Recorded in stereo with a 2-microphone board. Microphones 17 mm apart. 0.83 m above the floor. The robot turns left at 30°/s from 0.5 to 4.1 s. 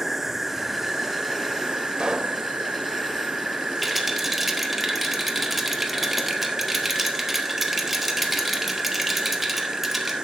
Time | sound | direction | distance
0.0 | an insect | 20° right | 0.7 m
2.0 | a pop | 50° right (ahead or behind) | 0.8 m
3.8 | a rattle | 5° right (ahead or behind) | 1.1 m